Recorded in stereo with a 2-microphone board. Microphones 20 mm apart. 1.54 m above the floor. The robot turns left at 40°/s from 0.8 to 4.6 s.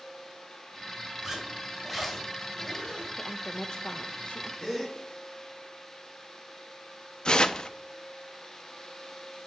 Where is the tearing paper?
40° left (ahead or behind), 0.6 m.